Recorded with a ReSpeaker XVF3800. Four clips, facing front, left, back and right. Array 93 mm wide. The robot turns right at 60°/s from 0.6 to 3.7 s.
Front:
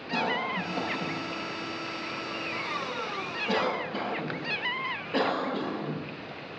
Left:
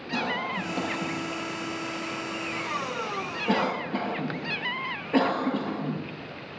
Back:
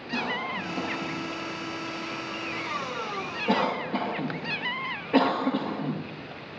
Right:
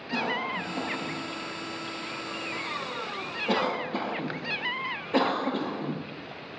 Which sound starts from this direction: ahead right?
A cough, at 0.1 s.